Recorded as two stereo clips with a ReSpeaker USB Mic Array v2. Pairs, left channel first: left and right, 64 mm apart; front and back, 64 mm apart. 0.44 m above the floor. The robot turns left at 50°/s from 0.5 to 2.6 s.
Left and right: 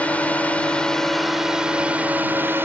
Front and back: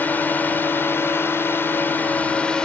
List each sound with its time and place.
0.0 s a drone: 35° left; by 2.7 s 70° right